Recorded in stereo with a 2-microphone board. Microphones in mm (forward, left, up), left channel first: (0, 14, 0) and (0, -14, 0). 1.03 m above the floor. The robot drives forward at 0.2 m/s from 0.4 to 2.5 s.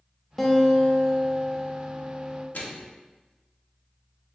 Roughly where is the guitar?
Centre.